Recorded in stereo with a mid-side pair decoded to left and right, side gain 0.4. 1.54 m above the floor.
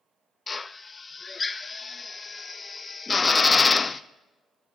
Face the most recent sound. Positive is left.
turn(degrees=30)